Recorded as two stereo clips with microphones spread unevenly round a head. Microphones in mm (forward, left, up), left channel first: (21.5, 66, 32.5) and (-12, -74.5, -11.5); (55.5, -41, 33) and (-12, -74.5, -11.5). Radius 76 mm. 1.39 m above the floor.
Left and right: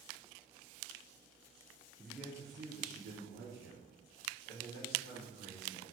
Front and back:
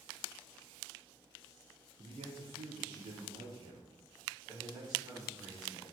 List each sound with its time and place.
2.0 s a man speaking: 155° left, 0.6 m; by 5.9 s 100° right, 2 m